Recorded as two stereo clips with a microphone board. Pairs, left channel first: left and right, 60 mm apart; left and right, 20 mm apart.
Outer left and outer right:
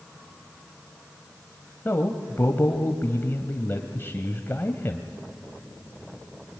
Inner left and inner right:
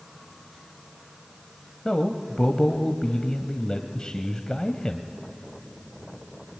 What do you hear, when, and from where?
1.9 s a man speaking: 40° left (ahead or behind), 1.3 m